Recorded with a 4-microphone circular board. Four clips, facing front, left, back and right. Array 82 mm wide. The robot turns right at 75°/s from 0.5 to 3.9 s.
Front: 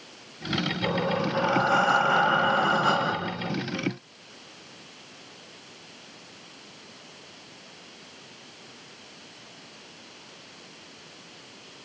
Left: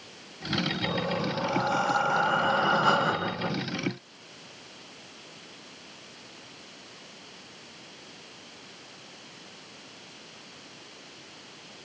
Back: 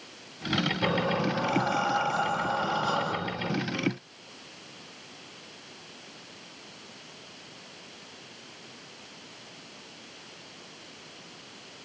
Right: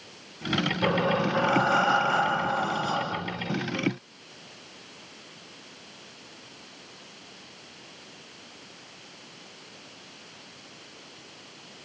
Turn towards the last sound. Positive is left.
turn(degrees=120)